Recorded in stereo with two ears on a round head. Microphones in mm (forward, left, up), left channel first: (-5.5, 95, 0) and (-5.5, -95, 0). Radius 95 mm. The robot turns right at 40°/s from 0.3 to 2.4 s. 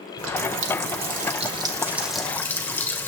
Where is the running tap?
75° right, 1.8 m; by 3.1 s 10° left, 1.8 m.